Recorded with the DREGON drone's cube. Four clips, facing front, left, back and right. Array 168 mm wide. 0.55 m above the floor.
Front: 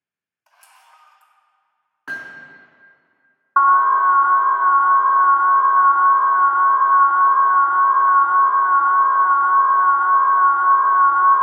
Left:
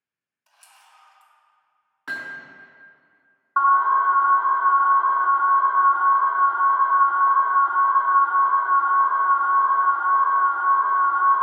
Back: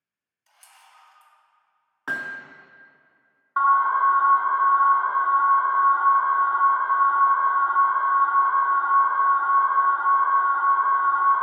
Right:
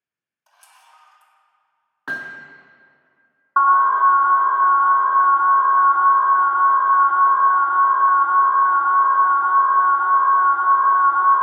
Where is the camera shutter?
30° right, 1.6 m.